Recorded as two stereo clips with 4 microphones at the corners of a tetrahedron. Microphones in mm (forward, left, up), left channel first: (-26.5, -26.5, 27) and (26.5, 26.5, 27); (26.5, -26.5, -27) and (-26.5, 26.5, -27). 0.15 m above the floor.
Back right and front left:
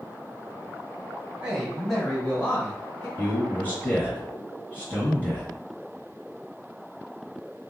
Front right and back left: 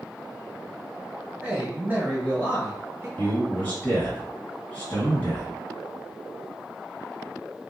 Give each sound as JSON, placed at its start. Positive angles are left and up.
{"t": 1.4, "sound": "a man speaking", "azimuth_deg": 100, "distance_m": 1.2}
{"t": 3.2, "sound": "a man speaking", "azimuth_deg": -95, "distance_m": 1.9}